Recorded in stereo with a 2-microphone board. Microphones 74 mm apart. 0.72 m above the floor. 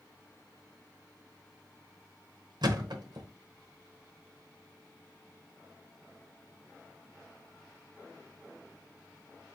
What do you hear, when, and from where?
2.6 s a thud: 80° right, 1.0 m